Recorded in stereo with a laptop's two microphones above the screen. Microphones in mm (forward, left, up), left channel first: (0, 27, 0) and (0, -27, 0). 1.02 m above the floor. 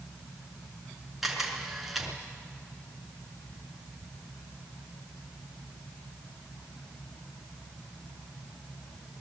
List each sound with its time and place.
1.2 s a camera shutter: 5° right (ahead or behind), 4.5 m